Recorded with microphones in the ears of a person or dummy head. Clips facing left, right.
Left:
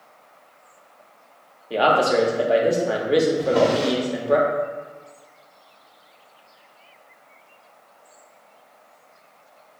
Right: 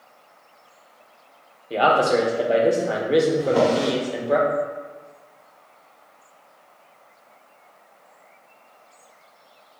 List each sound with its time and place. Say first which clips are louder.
1.7 s a man speaking: even; 5° left (ahead or behind), 0.6 m
3.4 s a drawer: even; centre (ahead or behind), 1.7 m